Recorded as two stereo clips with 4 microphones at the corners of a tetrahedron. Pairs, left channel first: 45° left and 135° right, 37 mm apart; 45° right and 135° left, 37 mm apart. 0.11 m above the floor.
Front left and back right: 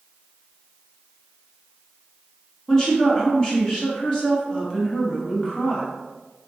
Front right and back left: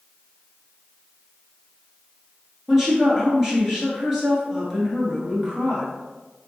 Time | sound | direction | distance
2.7 | a woman speaking | 75° left | 1.3 m